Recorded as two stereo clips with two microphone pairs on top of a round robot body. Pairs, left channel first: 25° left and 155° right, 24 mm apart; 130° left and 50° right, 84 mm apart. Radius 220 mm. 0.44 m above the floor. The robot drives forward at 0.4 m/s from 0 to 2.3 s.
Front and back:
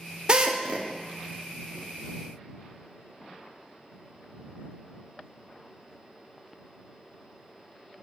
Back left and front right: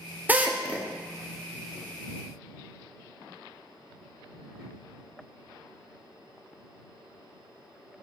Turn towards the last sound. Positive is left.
turn(degrees=-145)